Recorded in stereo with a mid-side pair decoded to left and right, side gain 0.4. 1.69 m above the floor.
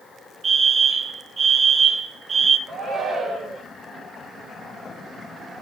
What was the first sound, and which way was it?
A fire alarm, 45° right.